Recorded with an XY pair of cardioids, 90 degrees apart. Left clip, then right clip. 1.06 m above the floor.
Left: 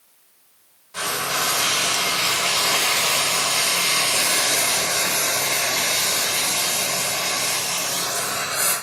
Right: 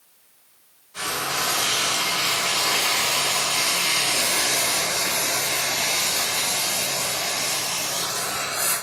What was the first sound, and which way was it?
Frying, 65° left.